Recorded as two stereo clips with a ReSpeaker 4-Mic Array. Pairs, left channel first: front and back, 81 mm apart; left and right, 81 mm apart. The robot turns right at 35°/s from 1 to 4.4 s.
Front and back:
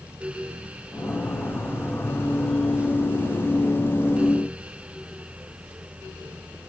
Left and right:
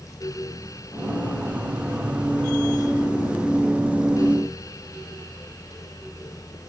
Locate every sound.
Only background noise.